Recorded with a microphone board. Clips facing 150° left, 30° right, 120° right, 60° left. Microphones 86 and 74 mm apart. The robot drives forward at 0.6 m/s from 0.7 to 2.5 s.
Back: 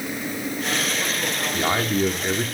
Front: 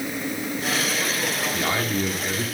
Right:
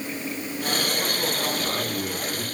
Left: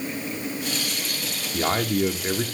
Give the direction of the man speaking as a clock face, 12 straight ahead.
9 o'clock.